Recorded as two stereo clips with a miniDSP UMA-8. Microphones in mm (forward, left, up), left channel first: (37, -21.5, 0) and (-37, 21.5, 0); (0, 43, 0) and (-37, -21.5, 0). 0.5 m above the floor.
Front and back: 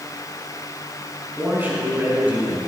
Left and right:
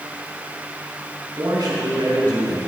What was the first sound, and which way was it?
A man speaking, 140° right.